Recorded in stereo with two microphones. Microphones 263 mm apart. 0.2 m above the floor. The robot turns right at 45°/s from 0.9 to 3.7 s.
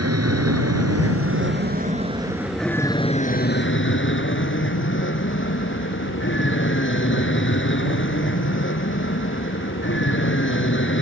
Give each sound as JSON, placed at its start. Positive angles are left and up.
{"t": 0.0, "sound": "an aircraft", "azimuth_deg": -75}